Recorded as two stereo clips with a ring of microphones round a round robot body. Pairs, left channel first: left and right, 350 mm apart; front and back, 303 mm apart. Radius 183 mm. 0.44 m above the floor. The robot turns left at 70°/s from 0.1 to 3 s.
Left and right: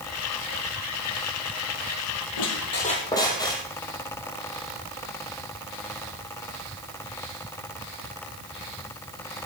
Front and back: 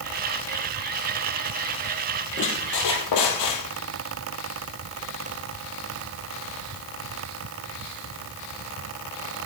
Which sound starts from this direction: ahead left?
A squeak, at 2.4 s.